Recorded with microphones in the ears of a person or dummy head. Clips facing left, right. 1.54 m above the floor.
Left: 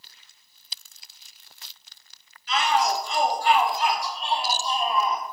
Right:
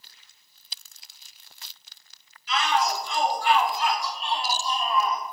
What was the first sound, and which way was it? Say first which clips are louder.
A shout: left 2 dB; 40° left (ahead or behind).